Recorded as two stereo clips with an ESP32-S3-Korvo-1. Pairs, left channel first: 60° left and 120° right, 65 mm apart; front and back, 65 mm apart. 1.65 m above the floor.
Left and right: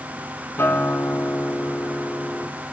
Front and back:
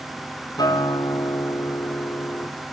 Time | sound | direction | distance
0.6 | a guitar | 5° left | 5 m